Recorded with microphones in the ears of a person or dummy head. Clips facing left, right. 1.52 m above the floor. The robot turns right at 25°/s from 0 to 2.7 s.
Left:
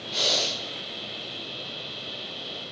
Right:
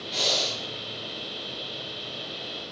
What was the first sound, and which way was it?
Breathing, 10° left (ahead or behind).